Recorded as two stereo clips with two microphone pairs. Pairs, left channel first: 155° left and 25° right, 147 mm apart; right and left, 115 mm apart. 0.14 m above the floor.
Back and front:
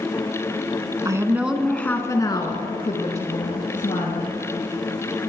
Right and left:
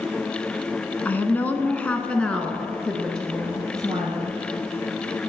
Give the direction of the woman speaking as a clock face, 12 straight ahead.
1 o'clock.